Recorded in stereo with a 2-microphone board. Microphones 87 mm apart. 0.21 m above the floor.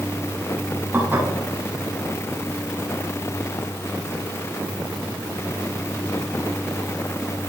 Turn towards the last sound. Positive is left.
turn(degrees=-20)  # may be behind; listen again after turning